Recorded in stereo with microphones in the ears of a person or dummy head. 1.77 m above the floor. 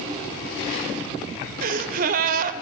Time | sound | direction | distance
1.6 | a gasp | 50° right (ahead or behind) | 0.9 m